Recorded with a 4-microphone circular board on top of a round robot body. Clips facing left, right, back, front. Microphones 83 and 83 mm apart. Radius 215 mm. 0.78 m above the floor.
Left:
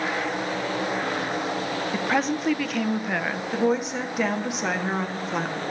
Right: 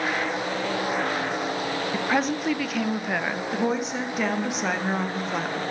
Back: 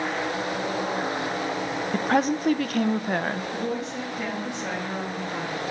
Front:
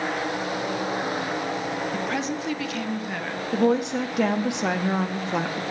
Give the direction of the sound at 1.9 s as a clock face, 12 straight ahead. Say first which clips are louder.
Even, back 5 dB; 6 o'clock.